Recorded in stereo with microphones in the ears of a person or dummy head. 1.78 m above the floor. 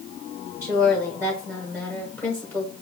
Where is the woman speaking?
20° right (ahead or behind), 1.0 m.